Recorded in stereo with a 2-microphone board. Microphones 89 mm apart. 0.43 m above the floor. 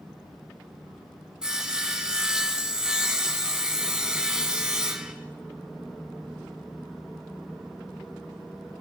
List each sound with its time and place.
1.4 s sawing: 10° right (ahead or behind), 1.8 m